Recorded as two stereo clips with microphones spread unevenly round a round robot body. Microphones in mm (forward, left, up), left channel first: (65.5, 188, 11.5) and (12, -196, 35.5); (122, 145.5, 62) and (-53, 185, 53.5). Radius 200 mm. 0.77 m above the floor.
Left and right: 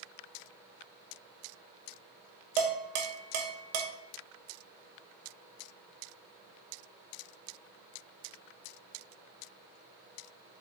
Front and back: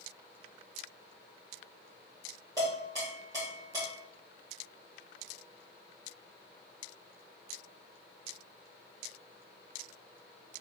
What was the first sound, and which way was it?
Dishes clattering, 120° right.